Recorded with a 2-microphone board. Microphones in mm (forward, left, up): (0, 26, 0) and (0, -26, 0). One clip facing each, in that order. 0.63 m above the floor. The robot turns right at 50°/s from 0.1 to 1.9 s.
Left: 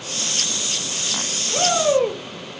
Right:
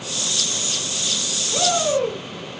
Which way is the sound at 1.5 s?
5° left (ahead or behind).